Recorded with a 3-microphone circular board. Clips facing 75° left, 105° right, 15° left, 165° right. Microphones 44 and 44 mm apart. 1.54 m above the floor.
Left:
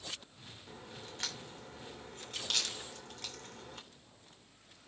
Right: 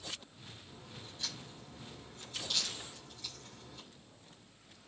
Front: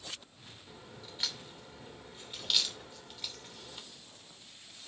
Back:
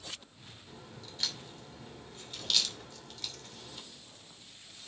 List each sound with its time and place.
0.7 s a crack: 90° left, 2.5 m